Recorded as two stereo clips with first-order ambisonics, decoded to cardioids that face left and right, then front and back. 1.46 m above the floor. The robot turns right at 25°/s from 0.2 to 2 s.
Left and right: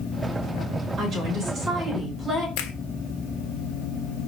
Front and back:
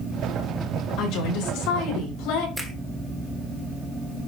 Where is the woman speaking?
35° right, 5 m; by 2.5 s 10° right, 5 m.